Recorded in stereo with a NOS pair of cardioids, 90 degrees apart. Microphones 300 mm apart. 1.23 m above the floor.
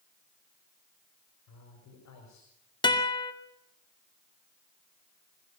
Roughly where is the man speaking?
Left.